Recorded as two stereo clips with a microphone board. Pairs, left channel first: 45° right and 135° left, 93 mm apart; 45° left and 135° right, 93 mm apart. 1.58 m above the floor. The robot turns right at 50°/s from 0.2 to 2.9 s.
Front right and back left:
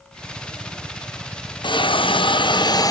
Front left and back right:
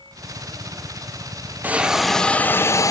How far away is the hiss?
About 0.8 m.